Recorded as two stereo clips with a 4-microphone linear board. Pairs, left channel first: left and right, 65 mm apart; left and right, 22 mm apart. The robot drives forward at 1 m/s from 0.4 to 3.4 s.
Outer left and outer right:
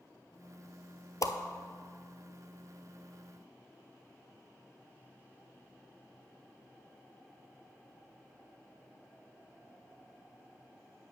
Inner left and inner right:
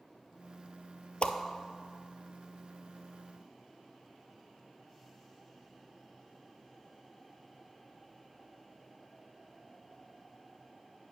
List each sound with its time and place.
1.2 s a whoosh: 60° left (ahead or behind), 0.6 m; by 1.3 s 70° left (ahead or behind), 0.5 m